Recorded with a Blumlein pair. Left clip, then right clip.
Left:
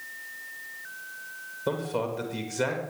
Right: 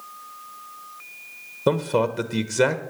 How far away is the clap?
No clap in this recording.